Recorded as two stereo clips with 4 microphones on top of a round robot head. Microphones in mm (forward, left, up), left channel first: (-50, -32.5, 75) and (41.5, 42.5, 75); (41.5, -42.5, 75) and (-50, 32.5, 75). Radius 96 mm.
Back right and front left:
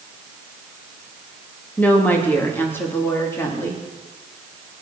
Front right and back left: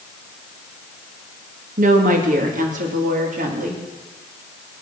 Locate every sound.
1.8 s a woman speaking: 140° left, 2.5 m; by 3.8 s 150° left, 3.5 m